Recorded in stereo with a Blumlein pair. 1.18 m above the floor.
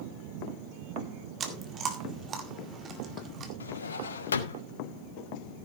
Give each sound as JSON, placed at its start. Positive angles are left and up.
{"t": 1.4, "sound": "chewing", "azimuth_deg": -25, "distance_m": 2.0}
{"t": 3.6, "sound": "a drawer", "azimuth_deg": 70, "distance_m": 1.4}